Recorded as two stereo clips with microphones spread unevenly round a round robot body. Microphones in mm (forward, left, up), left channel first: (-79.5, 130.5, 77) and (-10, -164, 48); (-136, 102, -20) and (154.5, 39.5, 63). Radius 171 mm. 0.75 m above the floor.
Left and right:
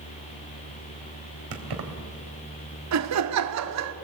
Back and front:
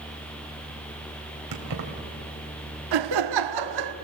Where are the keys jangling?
50° right, 2.5 m.